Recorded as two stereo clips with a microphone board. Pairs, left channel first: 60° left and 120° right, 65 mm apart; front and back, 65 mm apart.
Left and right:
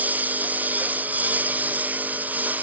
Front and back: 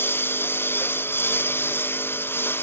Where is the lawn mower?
55° right.